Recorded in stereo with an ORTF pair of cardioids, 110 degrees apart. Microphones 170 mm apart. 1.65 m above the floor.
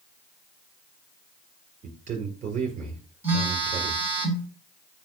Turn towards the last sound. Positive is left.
turn(degrees=-15)